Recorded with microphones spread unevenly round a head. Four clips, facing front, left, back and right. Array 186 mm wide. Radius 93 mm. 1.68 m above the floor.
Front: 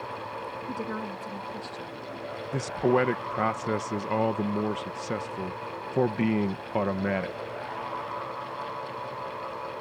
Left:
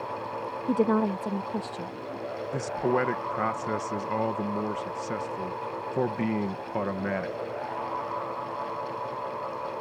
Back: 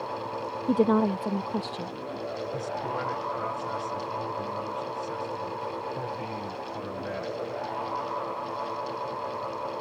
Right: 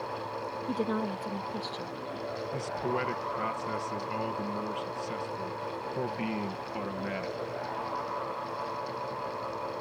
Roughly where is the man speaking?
Ahead left.